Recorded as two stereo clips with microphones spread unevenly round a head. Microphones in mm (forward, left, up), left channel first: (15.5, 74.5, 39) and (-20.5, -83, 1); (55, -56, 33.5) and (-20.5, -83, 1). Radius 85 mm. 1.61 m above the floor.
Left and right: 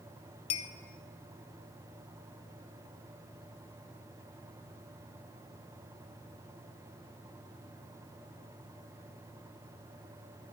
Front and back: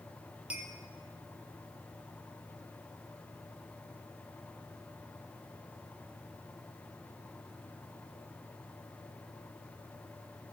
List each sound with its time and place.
0.5 s a clink: 100° left, 0.7 m